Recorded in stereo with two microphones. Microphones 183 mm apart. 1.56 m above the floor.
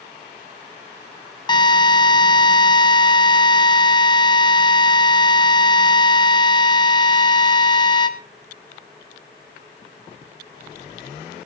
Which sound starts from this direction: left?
A drill, at 1.5 s.